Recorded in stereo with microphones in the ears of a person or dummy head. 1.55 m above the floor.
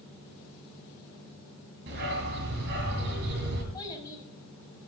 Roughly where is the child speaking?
Centre.